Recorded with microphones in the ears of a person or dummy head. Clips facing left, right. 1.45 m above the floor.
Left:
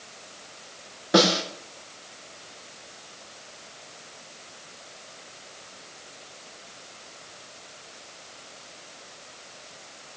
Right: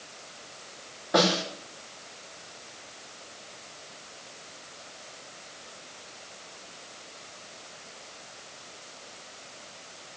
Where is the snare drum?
45° left (ahead or behind), 3 m.